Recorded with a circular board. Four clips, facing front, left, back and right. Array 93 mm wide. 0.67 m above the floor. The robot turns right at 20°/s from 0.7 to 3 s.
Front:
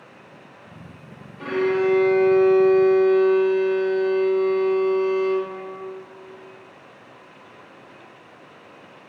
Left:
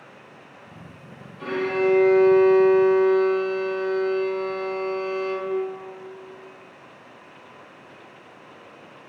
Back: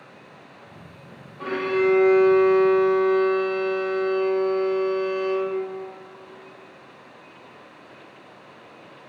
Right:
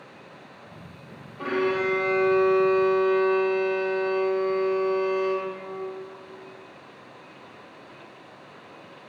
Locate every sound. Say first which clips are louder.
1.4 s a violin: left 2 dB, front 2 dB; 80° right, 1.8 m; by 5.5 s 50° right, 1.8 m